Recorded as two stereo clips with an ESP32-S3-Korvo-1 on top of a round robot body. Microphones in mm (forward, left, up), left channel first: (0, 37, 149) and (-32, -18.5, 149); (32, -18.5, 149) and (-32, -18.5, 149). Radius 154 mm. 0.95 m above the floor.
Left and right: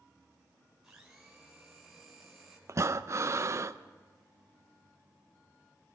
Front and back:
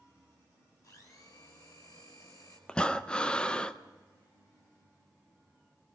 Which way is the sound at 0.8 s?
35° right.